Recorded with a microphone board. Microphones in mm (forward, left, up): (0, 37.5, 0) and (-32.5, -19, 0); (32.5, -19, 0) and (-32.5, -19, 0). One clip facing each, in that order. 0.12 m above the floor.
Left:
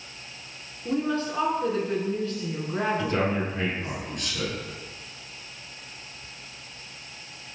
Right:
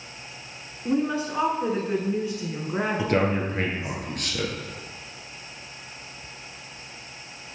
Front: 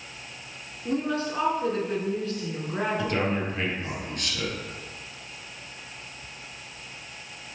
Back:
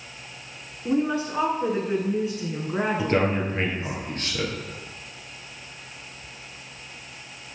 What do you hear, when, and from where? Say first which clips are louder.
0.8 s a woman speaking: right 2 dB, back 3 dB; 155° right, 1.1 m
3.0 s a man speaking: right 2 dB, back 4 dB; 135° right, 2.0 m